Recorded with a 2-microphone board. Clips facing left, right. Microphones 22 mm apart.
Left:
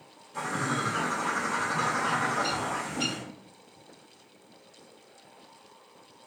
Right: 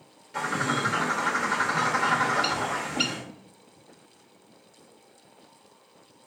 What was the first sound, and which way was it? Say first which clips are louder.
A bird: right 3 dB; 75° right (ahead or behind).